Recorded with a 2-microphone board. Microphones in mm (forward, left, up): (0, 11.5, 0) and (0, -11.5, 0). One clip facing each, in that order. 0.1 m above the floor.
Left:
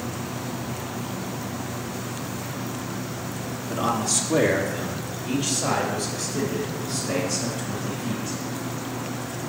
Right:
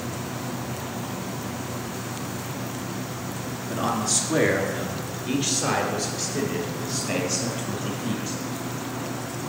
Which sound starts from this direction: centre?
A man speaking, at 3.7 s.